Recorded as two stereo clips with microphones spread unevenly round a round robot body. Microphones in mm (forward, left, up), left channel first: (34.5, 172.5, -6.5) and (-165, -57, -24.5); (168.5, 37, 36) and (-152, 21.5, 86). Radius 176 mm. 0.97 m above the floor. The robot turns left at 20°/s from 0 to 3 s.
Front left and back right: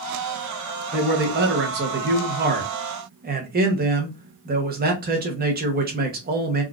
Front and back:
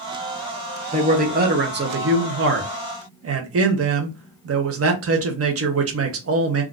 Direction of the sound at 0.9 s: 110° right.